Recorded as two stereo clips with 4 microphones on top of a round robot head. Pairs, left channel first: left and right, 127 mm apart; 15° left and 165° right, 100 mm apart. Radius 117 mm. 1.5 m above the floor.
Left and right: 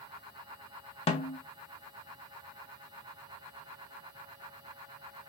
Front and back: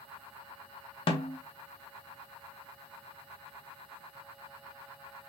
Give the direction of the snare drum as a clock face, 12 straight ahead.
10 o'clock.